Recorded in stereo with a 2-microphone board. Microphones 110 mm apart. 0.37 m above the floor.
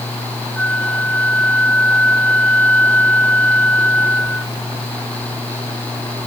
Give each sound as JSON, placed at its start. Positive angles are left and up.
{"t": 0.6, "sound": "a flute", "side_deg": 15}